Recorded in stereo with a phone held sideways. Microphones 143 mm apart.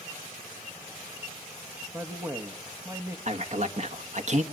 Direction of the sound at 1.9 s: 15° right (ahead or behind).